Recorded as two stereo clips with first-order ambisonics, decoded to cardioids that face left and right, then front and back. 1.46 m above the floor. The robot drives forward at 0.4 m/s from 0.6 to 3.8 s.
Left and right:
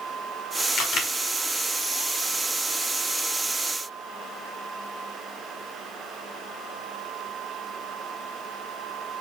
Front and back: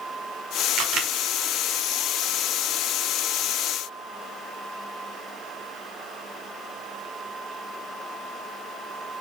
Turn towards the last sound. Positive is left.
turn(degrees=155)